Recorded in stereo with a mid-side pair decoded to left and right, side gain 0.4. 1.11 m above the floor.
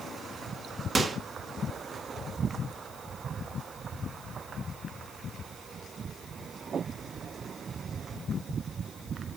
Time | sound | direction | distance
0.9 | a microwave | 40° right | 1.3 m